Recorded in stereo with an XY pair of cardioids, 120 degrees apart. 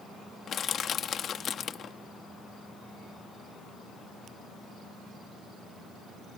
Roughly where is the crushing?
Ahead left.